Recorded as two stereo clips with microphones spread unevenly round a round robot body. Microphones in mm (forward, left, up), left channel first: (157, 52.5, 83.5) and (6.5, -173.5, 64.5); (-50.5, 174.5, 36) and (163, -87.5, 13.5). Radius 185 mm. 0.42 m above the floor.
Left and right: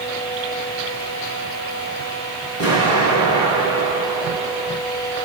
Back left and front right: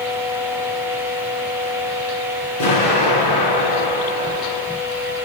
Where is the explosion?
115° left, 4 m.